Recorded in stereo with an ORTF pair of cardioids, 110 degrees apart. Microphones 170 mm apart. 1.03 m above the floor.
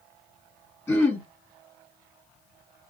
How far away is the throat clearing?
About 1.5 m.